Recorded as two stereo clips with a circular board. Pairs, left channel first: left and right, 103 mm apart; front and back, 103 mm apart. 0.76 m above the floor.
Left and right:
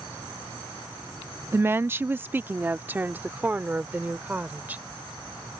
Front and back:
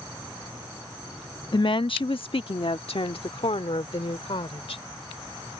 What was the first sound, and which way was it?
A woman speaking, 30° right.